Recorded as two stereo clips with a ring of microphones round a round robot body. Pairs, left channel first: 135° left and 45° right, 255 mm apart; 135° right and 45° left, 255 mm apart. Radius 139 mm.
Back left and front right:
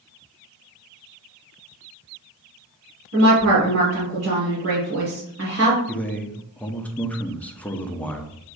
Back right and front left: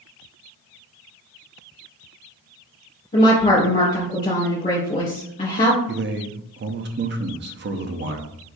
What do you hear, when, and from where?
3.1 s a woman speaking: 70° right, 2 m
5.9 s a man speaking: 55° left, 0.7 m